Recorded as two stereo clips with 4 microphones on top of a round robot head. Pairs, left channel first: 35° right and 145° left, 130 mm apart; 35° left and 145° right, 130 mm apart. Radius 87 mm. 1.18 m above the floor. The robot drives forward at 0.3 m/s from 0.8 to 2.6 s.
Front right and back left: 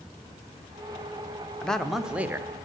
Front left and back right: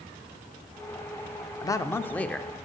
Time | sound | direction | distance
1.6 | a man speaking | 40° left | 0.6 m